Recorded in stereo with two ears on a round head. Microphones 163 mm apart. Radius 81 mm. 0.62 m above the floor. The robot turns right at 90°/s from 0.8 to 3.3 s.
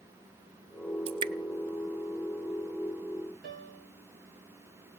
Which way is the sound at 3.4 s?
50° right (ahead or behind).